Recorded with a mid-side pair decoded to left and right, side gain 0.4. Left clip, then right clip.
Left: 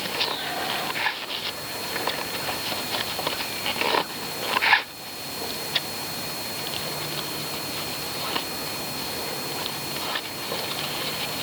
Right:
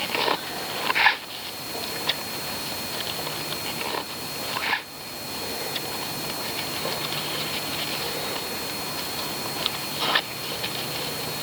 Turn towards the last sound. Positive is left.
No sound to turn to.